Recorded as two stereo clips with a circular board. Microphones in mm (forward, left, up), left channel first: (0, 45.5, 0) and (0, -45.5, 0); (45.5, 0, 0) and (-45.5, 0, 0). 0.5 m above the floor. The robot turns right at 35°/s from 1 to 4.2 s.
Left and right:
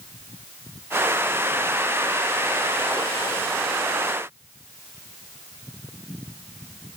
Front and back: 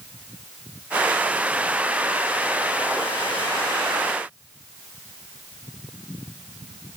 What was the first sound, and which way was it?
Only background noise.